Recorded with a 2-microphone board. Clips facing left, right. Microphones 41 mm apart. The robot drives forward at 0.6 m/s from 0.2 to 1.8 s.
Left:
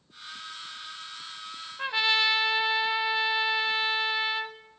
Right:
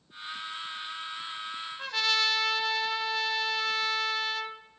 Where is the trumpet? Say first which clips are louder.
Left 3 dB; 25° left (ahead or behind), 0.8 m.